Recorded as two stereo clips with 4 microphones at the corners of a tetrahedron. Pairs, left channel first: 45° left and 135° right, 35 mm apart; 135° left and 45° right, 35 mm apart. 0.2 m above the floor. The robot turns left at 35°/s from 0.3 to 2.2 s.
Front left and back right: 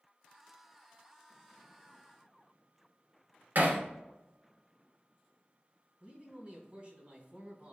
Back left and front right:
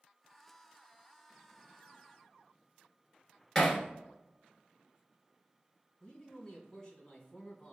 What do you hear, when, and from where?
3.5 s hammering: 145° right, 1.3 m
6.0 s a man speaking: 160° right, 2 m